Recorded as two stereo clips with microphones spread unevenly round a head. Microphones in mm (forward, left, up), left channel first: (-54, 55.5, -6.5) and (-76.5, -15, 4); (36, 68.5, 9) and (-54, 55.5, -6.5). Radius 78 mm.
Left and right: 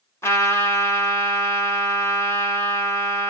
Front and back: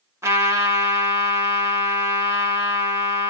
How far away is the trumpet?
About 1.9 m.